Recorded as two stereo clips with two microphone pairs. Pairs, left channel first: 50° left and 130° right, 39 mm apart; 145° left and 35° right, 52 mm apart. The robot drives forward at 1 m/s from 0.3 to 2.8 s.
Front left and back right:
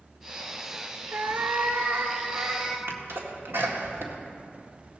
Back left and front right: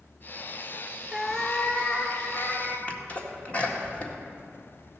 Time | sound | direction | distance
1.1 | a cat meowing | 115° right | 0.6 m
2.9 | a sneeze | 155° right | 1.9 m